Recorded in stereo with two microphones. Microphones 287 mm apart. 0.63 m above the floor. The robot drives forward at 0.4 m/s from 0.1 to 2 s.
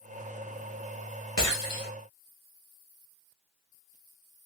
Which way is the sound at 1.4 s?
70° left (ahead or behind).